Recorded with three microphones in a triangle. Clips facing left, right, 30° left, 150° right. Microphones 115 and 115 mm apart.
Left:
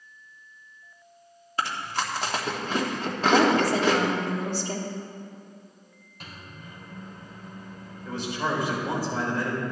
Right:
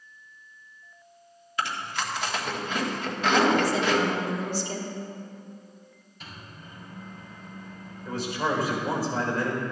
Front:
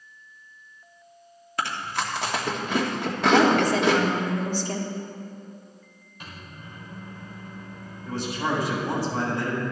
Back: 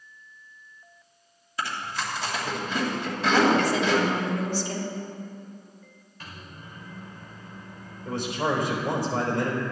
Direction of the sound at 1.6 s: 40° left.